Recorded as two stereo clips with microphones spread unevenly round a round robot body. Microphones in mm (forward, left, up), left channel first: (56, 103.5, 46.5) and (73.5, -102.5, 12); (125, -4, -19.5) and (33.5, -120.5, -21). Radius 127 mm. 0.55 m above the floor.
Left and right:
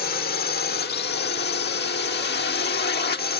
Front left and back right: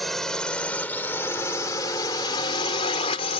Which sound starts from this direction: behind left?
A drone, at 0.0 s.